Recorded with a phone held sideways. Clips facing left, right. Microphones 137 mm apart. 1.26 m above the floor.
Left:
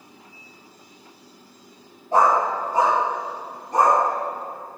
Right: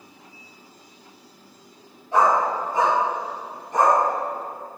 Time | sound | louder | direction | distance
2.1 | a dog barking | left 1 dB | 40° left (ahead or behind) | 1.7 m